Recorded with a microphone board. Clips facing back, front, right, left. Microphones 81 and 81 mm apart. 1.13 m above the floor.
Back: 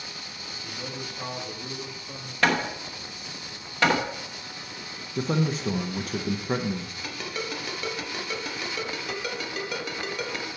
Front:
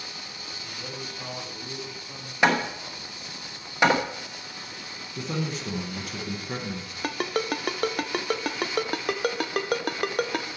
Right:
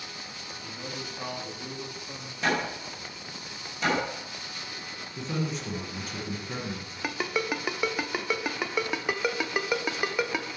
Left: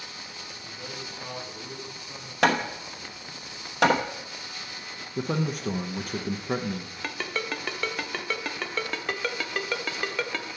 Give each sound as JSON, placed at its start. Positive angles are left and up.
{"t": 0.6, "sound": "a man speaking", "azimuth_deg": -110, "distance_m": 2.5}
{"t": 2.4, "sound": "hammering", "azimuth_deg": 70, "distance_m": 0.9}
{"t": 5.2, "sound": "a man speaking", "azimuth_deg": 130, "distance_m": 0.6}
{"t": 7.0, "sound": "a ringtone", "azimuth_deg": -15, "distance_m": 0.5}